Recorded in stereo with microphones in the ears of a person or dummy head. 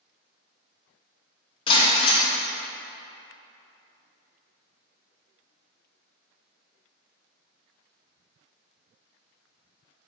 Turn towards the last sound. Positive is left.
turn(degrees=30)  # may be behind; listen again after turning